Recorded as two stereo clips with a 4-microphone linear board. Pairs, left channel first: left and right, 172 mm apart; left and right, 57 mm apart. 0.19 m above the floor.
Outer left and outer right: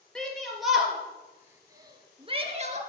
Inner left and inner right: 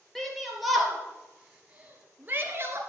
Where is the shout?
5° left (ahead or behind), 4 m; by 2.8 s 45° right (ahead or behind), 2.5 m.